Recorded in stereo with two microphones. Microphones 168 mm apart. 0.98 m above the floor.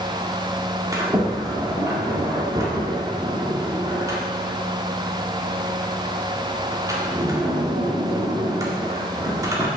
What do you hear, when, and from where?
0.9 s a sliding door: 20° right (ahead or behind), 1.5 m